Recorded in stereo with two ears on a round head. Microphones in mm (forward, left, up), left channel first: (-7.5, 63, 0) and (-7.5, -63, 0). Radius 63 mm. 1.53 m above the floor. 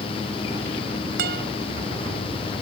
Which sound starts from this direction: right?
A guitar, at 1.2 s.